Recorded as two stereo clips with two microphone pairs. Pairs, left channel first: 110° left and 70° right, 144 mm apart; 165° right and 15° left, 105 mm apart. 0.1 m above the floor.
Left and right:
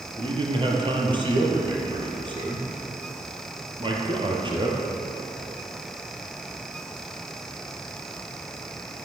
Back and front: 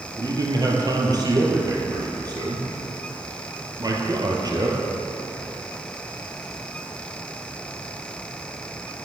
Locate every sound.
0.2 s a man speaking: 25° right, 3 m